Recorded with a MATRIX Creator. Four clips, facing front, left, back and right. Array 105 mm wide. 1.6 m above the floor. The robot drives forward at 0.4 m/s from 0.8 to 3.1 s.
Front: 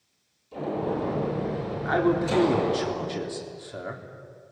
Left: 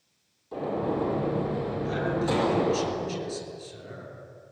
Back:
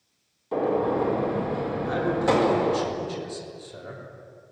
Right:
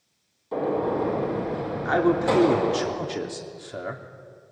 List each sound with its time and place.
0.5 s a gunshot: 155° right, 5.5 m; by 2.9 s 160° right, 6 m
1.9 s a man speaking: 60° right, 3.5 m; by 4.0 s 65° right, 3 m